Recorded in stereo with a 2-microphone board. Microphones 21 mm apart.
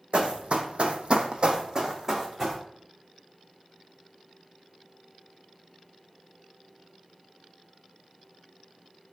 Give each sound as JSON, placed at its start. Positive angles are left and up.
{"t": 0.1, "sound": "running footsteps", "side_deg": -60, "distance_m": 0.7}